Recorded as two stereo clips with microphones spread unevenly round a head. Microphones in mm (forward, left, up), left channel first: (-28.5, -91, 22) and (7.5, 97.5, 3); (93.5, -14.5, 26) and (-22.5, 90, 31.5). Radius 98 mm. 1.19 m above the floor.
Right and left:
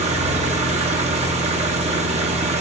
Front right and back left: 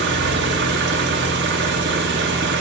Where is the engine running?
140° left, 1.4 m.